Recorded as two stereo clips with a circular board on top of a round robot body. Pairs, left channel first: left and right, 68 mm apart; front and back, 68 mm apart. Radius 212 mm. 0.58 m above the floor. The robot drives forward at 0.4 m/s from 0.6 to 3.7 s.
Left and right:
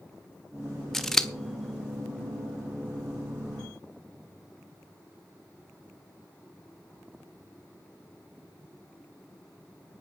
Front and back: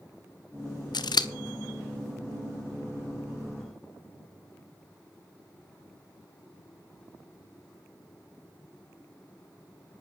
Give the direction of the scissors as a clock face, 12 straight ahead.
12 o'clock.